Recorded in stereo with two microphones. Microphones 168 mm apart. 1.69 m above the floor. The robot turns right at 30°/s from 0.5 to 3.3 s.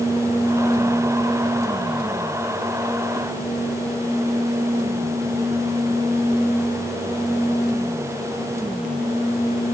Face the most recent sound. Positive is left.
No sound to turn to.